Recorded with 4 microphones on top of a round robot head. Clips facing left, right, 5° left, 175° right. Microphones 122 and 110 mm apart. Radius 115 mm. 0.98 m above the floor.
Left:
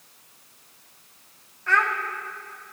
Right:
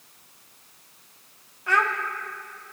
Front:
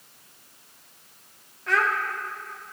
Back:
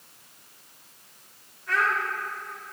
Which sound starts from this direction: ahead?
A child speaking, at 1.7 s.